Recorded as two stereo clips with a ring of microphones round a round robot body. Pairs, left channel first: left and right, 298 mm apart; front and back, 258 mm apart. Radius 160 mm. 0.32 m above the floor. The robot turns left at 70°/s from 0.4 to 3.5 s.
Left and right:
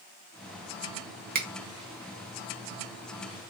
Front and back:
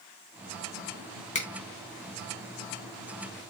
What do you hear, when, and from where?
1.4 s a finger snap: 45° right, 1.0 m; by 1.5 s 55° right, 1.0 m